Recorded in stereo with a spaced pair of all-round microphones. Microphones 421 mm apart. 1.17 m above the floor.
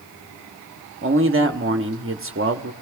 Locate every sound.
1.0 s a man speaking: 30° right (ahead or behind), 0.8 m